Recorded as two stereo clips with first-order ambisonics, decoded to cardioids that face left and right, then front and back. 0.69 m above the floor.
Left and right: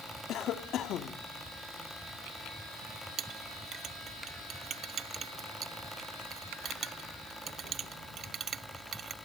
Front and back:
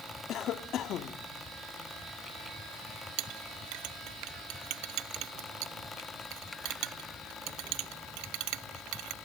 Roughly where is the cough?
Ahead left.